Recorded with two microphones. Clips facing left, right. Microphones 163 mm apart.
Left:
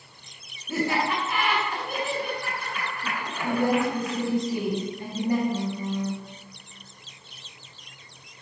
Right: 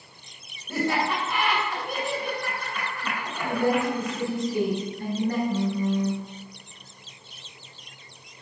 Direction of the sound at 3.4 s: 20° left (ahead or behind).